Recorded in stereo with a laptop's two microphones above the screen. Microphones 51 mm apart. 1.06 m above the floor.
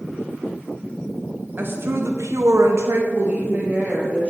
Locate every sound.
1.6 s a woman speaking: 40° right (ahead or behind), 1.2 m; by 4.3 s 30° right (ahead or behind), 2 m